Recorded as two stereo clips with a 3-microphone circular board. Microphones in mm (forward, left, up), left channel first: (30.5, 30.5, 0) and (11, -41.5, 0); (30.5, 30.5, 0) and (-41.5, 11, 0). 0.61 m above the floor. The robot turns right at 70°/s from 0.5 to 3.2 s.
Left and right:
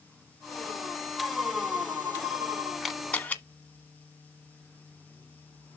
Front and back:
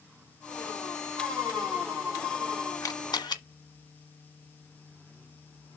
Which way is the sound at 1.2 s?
165° left.